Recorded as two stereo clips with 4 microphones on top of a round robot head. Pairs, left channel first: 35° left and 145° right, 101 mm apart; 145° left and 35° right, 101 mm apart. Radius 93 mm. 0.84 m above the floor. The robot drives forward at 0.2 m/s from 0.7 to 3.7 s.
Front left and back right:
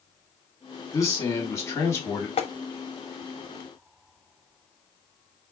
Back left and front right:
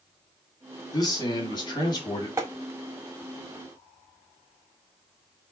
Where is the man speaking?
90° left, 2.5 m; by 2.3 s 100° left, 2.5 m.